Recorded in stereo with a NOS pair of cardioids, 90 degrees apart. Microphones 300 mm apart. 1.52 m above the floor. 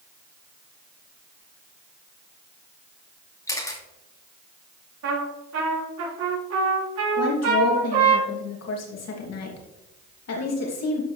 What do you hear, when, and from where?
3.5 s a camera shutter: 10° left, 2.5 m
5.0 s a trumpet: 65° right, 4 m
7.2 s a woman speaking: 55° left, 3 m